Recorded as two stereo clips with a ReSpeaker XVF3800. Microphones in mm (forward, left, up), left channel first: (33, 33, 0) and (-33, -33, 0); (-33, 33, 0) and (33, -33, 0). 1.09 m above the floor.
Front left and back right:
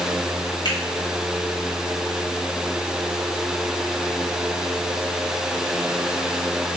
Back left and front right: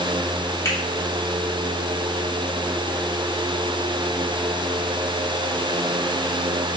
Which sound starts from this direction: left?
A finger snap, at 0.7 s.